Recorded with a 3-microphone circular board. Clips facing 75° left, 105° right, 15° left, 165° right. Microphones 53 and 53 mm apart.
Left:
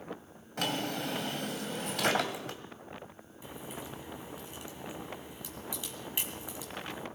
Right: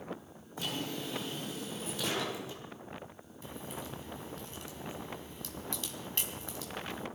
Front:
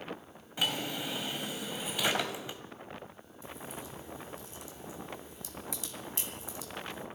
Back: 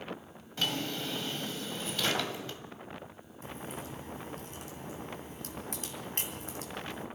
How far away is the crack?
About 3 m.